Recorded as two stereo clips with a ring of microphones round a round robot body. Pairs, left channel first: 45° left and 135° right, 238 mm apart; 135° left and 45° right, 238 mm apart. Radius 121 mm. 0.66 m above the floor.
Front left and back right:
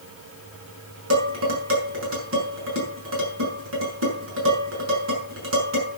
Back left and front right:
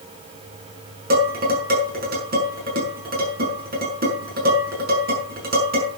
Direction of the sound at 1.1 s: 100° right.